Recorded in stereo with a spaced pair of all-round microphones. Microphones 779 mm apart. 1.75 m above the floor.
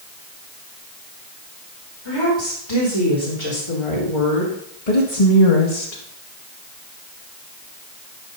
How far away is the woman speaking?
About 5 m.